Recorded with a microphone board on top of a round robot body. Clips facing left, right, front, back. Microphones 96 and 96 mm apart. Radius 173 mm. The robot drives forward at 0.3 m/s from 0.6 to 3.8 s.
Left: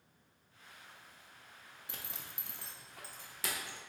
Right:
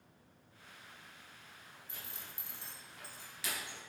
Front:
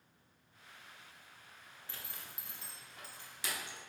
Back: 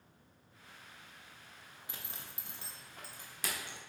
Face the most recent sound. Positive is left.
turn(degrees=140)